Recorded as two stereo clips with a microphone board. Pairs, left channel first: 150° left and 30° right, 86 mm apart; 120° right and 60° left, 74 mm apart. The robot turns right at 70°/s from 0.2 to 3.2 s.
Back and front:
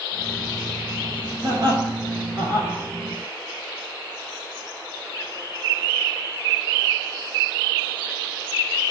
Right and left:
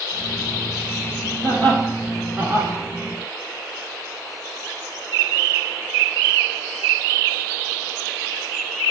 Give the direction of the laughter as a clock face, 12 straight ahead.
2 o'clock.